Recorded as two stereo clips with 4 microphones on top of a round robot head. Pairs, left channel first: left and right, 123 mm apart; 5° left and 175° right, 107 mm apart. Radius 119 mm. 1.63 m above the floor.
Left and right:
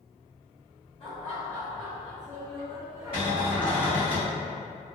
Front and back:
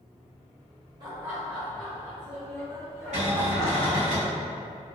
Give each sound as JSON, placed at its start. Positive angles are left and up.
{"t": 1.0, "sound": "laughter", "azimuth_deg": 145, "distance_m": 0.7}
{"t": 3.1, "sound": "a cupboard door", "azimuth_deg": -145, "distance_m": 1.3}